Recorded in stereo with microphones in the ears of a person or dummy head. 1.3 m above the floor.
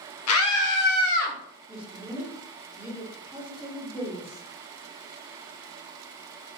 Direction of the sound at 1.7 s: 10° right (ahead or behind).